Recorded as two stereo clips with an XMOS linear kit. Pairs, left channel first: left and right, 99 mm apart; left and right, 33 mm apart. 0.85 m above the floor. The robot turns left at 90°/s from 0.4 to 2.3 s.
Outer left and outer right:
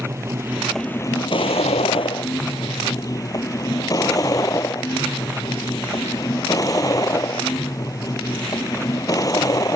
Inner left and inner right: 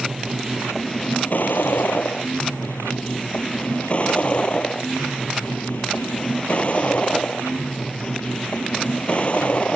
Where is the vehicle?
155° right; by 9.8 s 35° left.